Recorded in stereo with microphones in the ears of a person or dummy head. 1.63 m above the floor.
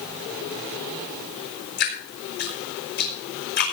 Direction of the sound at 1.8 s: 55° left (ahead or behind).